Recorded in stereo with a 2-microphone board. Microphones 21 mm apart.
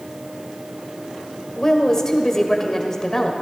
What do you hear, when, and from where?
1.6 s a woman speaking: 25° left (ahead or behind), 1.3 m